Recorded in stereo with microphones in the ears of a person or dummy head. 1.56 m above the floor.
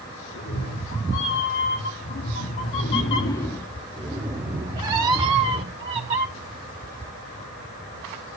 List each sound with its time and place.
0.3 s a cat meowing: 55° left (ahead or behind), 2.5 m; by 6.3 s 35° right (ahead or behind), 2 m